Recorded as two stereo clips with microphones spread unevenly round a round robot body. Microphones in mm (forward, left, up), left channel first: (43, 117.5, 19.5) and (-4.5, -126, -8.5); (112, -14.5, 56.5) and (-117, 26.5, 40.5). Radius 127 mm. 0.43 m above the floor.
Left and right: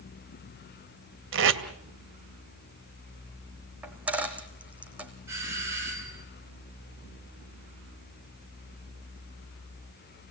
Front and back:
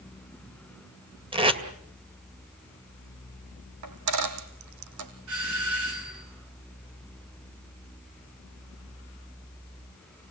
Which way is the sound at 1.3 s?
125° right.